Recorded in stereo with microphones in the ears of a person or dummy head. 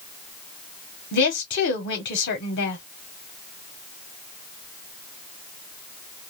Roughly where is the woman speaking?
Left.